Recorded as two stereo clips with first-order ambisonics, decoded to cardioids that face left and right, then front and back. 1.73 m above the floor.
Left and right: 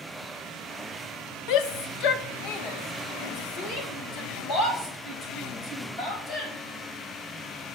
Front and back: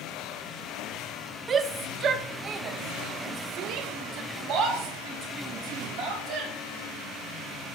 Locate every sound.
1.5 s a shout: 115° left, 0.7 m; by 6.5 s 145° left, 3 m